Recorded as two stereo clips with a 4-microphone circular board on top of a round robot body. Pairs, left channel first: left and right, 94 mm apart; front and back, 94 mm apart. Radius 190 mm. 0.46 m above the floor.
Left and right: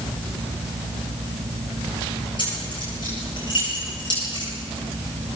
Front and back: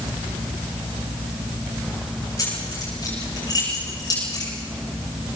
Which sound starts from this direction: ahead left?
Keys jangling, at 2.4 s.